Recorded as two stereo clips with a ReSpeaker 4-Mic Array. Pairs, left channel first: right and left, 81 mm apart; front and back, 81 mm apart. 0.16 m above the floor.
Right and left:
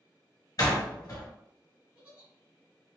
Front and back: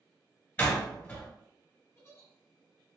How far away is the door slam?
About 1.7 m.